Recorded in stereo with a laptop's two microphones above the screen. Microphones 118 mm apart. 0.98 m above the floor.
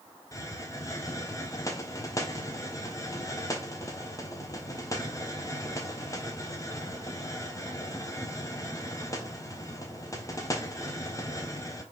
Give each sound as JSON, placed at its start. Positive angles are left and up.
{"t": 0.3, "sound": "a hiss", "side_deg": 30, "distance_m": 0.8}